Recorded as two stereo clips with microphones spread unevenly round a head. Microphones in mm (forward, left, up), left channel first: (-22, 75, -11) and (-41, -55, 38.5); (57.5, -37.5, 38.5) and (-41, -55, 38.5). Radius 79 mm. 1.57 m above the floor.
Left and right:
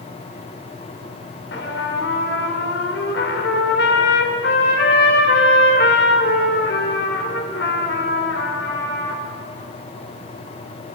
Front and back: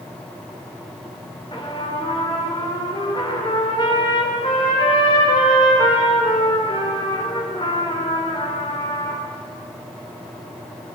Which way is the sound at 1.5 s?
75° left.